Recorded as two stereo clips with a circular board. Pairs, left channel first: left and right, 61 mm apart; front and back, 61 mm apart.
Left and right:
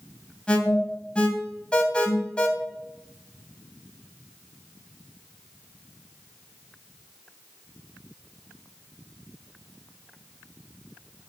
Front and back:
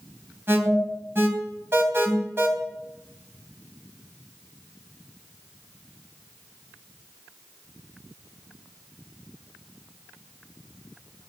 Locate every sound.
0.5 s an alarm: 155° left, 3 m